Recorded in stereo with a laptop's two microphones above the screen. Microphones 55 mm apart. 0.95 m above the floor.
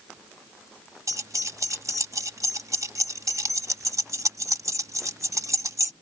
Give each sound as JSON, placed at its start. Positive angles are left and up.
{"t": 1.1, "sound": "keys jangling", "side_deg": -65}